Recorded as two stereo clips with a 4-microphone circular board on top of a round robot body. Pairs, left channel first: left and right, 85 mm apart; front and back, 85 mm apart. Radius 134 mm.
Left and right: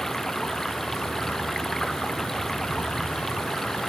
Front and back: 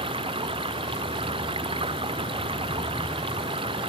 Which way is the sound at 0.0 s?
175° left.